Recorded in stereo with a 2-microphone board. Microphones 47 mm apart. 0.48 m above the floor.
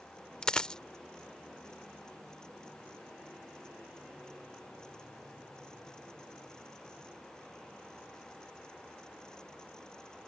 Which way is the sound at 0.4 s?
20° left (ahead or behind).